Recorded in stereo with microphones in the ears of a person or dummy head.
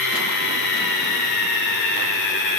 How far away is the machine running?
About 3 m.